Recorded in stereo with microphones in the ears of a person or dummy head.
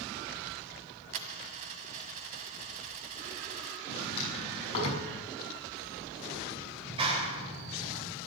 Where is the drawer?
35° left (ahead or behind), 6 m.